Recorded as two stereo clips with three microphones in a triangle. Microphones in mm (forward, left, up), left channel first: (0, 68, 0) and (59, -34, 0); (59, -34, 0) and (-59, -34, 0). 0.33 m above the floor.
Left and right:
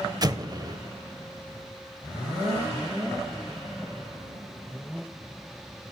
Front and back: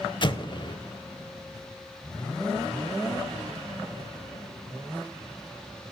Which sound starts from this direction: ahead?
An explosion, at 0.2 s.